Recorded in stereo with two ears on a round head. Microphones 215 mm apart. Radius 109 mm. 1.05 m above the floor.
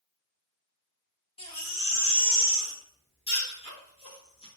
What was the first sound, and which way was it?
A baby crying, 20° left (ahead or behind).